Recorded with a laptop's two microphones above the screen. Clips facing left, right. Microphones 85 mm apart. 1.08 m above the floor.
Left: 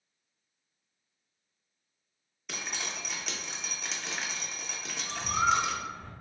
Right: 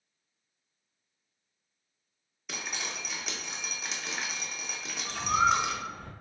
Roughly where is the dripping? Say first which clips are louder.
Even; centre.